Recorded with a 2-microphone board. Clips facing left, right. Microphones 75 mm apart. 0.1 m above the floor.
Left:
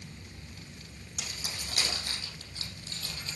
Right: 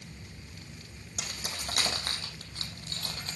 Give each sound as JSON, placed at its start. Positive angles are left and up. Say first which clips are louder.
{"t": 1.2, "sound": "keys jangling", "louder": "right 2 dB", "side_deg": -55, "distance_m": 3.0}